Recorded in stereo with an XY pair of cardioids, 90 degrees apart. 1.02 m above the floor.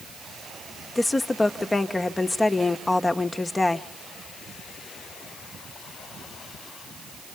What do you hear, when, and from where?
0.9 s a woman speaking: 20° left, 1.1 m